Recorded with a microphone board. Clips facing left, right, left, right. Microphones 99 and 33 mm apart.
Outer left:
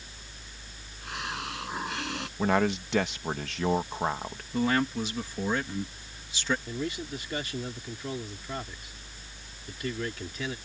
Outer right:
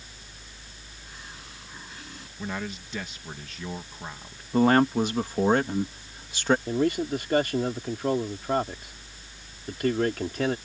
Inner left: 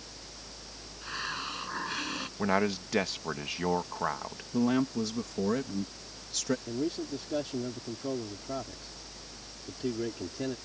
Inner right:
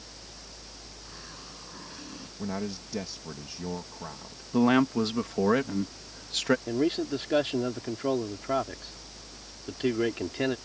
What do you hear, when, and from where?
1.0 s a hiss: 70° left (ahead or behind)
2.4 s a man speaking: 70° left (ahead or behind)
4.5 s a man speaking: 50° right (ahead or behind)
6.7 s a man speaking: 55° right (ahead or behind)